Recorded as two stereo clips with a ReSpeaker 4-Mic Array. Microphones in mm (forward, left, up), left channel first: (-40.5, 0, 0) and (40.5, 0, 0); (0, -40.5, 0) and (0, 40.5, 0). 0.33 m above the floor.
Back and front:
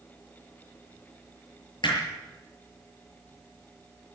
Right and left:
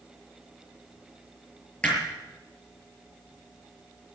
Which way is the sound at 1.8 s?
165° right.